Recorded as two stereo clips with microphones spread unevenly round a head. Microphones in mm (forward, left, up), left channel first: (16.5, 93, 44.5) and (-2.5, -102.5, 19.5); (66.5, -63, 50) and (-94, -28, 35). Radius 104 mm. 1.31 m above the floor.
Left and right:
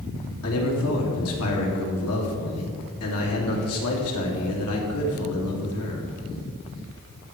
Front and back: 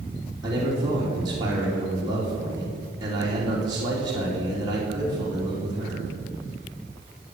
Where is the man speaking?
100° left, 3 m.